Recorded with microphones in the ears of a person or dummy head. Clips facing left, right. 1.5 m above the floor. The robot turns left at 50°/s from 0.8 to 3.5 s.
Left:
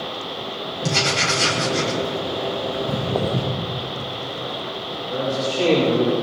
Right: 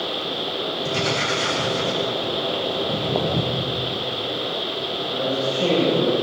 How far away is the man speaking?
About 6.5 m.